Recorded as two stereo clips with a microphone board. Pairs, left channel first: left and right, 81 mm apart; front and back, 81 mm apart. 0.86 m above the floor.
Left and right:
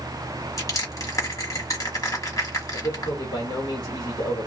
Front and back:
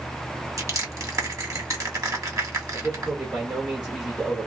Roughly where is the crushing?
Behind left.